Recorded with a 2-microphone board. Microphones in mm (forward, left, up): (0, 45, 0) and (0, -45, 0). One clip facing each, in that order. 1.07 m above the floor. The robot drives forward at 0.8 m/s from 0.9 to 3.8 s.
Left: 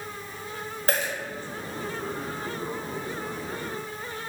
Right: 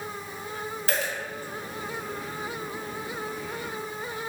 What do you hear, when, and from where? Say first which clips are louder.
0.9 s a dropped coin: left 3 dB; 40° left (ahead or behind), 1.0 m; by 1.1 s 35° left (ahead or behind), 1.1 m